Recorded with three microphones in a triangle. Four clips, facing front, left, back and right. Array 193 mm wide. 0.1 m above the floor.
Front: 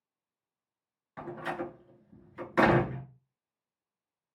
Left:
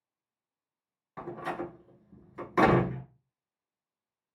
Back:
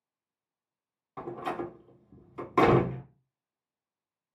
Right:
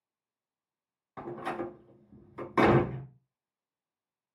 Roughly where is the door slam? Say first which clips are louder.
Even, back 2 dB; behind.